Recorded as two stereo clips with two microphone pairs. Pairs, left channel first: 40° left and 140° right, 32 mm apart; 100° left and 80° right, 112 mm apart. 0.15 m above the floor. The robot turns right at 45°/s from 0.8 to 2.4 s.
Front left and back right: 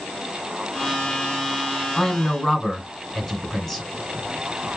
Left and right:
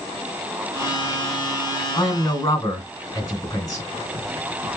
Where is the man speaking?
100° left, 1.7 m; by 3.9 s 120° left, 1.7 m.